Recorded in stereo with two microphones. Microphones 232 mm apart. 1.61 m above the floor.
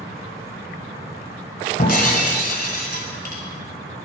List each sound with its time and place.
1.8 s breaking glass: 40° left (ahead or behind), 1.8 m